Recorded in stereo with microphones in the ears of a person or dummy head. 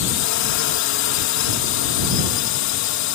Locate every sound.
0.0 s a drone: 70° left (ahead or behind)